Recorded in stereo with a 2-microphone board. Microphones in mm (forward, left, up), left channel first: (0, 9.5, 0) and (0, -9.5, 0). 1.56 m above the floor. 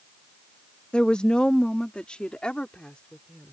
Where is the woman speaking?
70° left (ahead or behind); by 3.5 s 85° left.